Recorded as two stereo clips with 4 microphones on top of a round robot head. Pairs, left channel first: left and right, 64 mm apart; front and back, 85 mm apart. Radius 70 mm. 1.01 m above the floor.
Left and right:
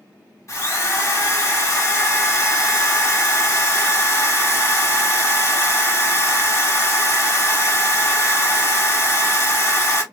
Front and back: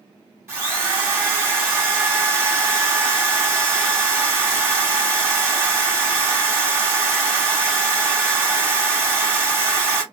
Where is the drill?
125° left, 2.5 m.